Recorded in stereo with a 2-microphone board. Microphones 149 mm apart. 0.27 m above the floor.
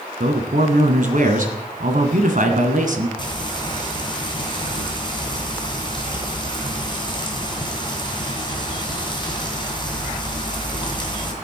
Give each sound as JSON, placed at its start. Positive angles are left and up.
{"t": 0.2, "sound": "a man speaking", "side_deg": -60, "distance_m": 2.0}
{"t": 3.2, "sound": "frying", "side_deg": 30, "distance_m": 2.5}